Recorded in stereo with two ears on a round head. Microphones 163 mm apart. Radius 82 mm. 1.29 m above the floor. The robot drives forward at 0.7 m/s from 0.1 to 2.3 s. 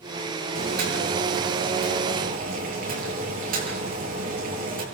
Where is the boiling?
60° right (ahead or behind), 8 m; by 4.8 s 50° right (ahead or behind), 8.5 m.